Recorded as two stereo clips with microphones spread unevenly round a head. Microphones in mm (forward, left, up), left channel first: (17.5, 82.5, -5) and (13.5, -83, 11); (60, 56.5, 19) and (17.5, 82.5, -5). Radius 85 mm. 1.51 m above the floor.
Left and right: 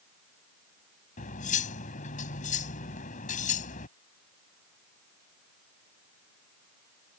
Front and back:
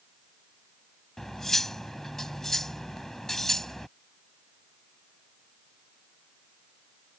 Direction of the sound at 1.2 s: 45° left.